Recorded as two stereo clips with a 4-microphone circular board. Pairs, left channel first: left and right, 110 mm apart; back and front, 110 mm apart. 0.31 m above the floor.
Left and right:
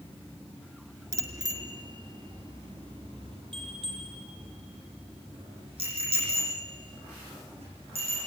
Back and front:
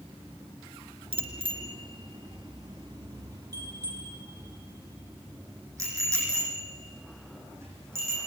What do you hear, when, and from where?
1.1 s a bicycle bell: 30° right, 3 m; by 8.2 s 65° right, 12.5 m